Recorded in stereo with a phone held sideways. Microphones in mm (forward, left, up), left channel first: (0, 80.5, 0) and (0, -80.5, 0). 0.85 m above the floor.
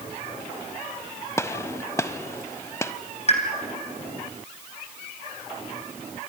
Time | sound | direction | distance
1.4 | a gunshot | 20° left (ahead or behind) | 0.7 m
3.3 | a pop | 45° left (ahead or behind) | 3 m